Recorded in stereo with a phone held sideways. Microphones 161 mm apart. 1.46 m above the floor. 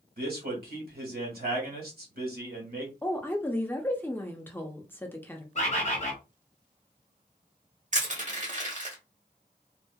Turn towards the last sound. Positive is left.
turn(degrees=-45)  # may be behind; listen again after turning